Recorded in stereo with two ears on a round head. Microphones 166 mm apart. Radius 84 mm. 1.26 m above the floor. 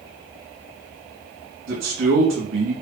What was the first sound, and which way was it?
A man speaking, 80° right.